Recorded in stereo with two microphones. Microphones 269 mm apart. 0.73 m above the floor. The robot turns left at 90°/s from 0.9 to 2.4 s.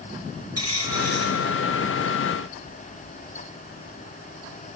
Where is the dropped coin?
60° right, 5.5 m; by 1.4 s 105° right, 5.5 m.